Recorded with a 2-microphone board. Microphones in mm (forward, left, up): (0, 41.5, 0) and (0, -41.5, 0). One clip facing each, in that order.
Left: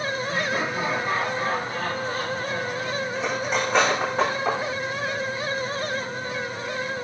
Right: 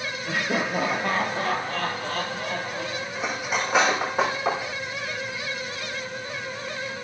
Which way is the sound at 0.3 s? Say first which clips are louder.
Right 4 dB; 65° right (ahead or behind).